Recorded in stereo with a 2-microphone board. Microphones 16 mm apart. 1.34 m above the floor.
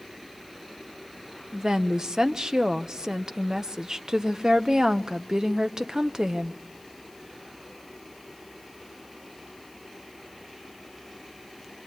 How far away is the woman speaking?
About 0.8 m.